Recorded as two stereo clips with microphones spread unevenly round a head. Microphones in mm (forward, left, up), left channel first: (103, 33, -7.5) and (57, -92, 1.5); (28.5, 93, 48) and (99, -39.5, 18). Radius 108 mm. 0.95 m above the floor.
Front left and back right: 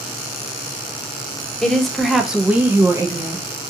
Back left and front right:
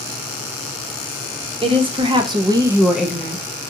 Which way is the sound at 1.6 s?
15° right.